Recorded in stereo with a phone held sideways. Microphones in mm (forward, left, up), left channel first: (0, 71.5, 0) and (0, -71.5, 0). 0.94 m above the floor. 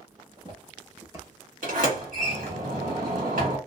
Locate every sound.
0.2 s footsteps: 40° right (ahead or behind), 1.4 m; by 2.6 s 20° left (ahead or behind), 1.0 m
1.6 s a sliding door: 70° right (ahead or behind), 1.7 m